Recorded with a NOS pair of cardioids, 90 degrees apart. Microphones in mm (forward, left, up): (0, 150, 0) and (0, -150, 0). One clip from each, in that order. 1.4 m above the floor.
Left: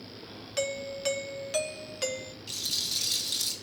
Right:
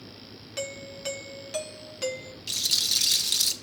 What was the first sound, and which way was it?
A doorbell, 10° left.